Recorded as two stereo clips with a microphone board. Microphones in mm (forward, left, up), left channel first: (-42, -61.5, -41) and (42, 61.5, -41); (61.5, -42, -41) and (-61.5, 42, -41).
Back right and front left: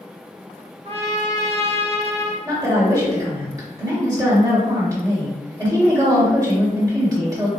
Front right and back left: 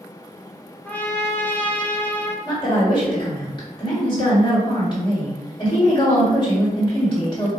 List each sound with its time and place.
0.8 s a trumpet: 40° left, 0.5 m
2.5 s a woman speaking: straight ahead, 1.6 m